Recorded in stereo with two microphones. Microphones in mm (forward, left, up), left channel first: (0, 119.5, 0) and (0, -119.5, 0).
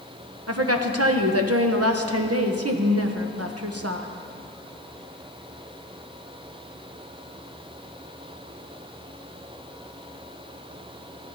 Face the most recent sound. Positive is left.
turn(degrees=-75)  # may be behind; listen again after turning